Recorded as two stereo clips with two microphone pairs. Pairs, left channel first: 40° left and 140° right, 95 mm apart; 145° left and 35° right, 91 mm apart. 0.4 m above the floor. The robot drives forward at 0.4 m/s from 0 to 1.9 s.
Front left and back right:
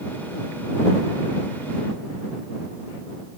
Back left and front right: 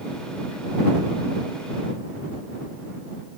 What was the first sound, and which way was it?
Only background noise.